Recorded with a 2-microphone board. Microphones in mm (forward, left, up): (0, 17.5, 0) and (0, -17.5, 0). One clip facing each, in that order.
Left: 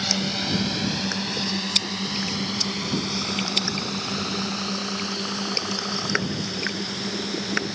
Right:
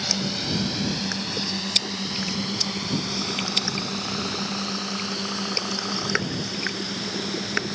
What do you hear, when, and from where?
0.0 s a drone: 20° left (ahead or behind); by 7.8 s centre (ahead or behind)